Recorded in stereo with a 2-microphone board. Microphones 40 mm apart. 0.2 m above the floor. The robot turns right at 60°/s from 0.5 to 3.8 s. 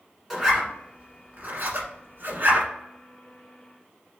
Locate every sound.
0.3 s a zipper: 5° right (ahead or behind), 1.2 m; by 2.7 s 35° right (ahead or behind), 1.2 m